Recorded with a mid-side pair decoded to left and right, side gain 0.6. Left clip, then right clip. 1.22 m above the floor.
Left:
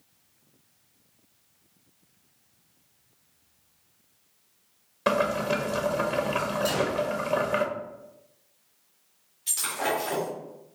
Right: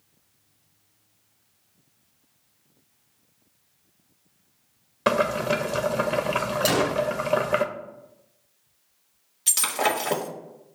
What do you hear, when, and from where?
5.1 s boiling: 25° right, 0.6 m
6.7 s a gunshot: 70° right, 0.6 m
9.5 s breaking glass: 70° right, 1.1 m